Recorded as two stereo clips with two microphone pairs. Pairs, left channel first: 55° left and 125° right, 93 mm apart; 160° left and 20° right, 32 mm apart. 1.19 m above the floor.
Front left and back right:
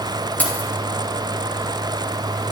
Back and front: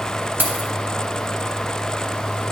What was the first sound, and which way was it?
Keys jangling, 15° right.